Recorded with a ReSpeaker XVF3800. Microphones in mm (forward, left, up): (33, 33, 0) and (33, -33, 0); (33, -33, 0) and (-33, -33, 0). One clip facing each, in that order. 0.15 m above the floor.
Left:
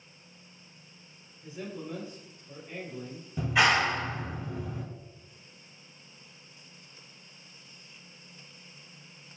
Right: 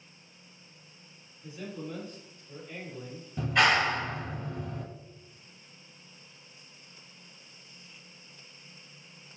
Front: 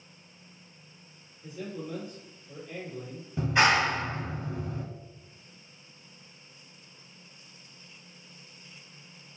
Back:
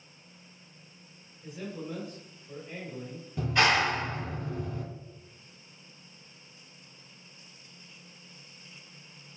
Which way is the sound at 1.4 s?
140° left.